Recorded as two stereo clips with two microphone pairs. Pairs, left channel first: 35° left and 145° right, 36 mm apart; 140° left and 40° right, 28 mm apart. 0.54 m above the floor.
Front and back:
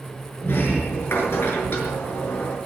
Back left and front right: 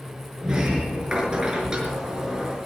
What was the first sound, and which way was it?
A sliding door, 25° left.